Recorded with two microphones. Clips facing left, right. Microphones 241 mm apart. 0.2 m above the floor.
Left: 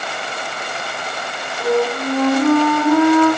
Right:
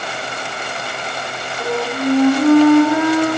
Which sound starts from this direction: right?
A flute, at 1.6 s.